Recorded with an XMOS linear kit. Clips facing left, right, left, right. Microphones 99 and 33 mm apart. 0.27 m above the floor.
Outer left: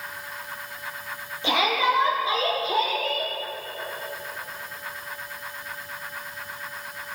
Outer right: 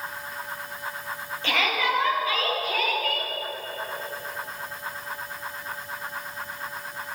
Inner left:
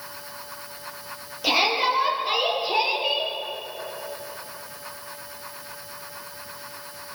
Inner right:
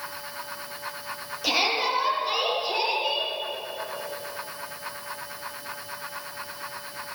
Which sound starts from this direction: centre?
A shout, at 1.4 s.